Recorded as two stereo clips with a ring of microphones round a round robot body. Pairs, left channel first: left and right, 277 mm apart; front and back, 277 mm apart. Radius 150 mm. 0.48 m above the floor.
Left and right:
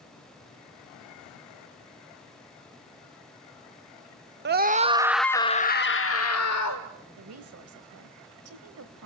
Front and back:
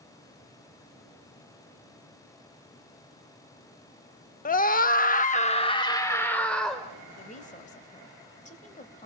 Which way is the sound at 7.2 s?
60° right.